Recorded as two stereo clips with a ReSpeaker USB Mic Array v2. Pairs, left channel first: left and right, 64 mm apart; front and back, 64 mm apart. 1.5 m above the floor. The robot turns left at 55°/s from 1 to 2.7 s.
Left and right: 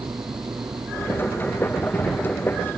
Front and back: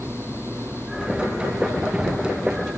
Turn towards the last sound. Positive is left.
turn(degrees=150)